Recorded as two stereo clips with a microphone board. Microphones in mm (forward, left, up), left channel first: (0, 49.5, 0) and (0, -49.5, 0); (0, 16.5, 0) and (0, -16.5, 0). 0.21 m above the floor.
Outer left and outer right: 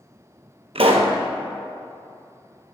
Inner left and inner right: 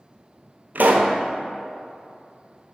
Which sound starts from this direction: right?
A pop, at 0.8 s.